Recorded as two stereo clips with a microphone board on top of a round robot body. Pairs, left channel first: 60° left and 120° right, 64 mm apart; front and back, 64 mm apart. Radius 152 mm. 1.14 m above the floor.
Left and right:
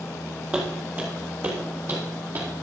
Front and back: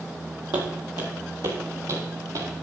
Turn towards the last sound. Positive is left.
turn(degrees=-165)